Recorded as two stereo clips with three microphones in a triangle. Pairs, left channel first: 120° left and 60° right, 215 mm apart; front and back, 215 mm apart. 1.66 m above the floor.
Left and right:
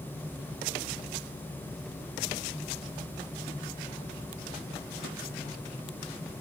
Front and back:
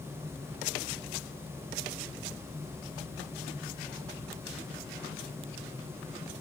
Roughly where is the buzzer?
I don't hear a buzzer.